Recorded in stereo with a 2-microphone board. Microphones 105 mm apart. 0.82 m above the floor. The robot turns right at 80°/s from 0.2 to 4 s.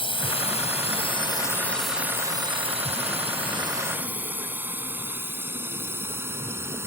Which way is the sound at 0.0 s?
55° left (ahead or behind).